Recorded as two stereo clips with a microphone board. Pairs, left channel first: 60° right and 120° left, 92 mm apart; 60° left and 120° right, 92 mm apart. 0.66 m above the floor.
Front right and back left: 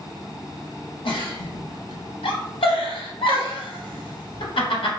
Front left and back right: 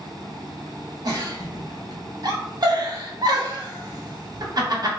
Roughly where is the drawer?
No drawer in this recording.